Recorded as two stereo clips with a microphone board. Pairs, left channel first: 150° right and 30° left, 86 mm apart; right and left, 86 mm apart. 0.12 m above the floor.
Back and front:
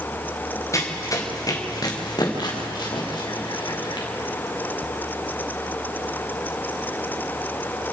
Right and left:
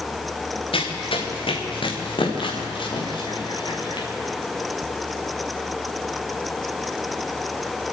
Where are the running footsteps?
95° right, 4 m; by 4.1 s 120° right, 6 m.